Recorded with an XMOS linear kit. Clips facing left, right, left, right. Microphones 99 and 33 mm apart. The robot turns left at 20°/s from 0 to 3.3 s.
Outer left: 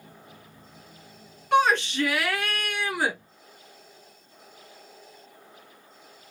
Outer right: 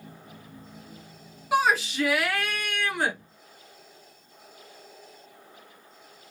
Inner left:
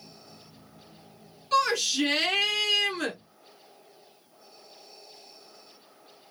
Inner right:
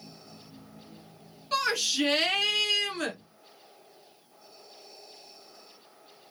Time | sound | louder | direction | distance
1.5 | a shout | outer left 2 dB, inner left 3 dB | 5° right (ahead or behind) | 1.1 m